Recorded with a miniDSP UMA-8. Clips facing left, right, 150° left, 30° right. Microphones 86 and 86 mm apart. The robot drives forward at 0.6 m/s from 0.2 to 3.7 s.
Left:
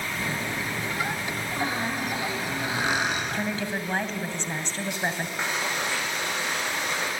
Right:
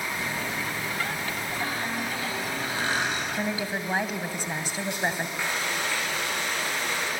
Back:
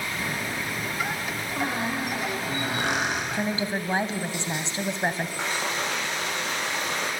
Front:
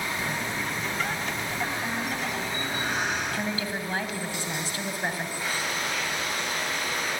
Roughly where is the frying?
Behind.